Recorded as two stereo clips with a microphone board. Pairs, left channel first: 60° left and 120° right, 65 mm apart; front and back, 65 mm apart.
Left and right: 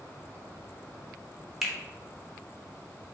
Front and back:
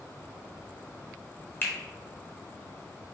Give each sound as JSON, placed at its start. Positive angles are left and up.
{"t": 1.6, "sound": "a finger snap", "azimuth_deg": -30, "distance_m": 0.8}